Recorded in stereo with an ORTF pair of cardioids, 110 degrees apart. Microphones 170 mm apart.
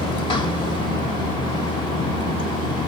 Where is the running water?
30° left, 1.5 m.